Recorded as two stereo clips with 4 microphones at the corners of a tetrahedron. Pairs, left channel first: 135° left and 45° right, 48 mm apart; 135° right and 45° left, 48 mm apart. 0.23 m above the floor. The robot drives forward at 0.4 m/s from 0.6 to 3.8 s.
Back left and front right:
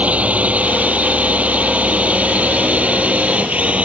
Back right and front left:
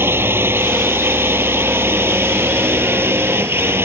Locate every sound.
0.0 s a drone: 15° left